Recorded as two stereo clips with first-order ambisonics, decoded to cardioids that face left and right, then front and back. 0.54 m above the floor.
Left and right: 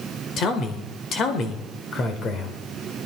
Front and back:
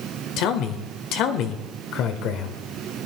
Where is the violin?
No violin in this recording.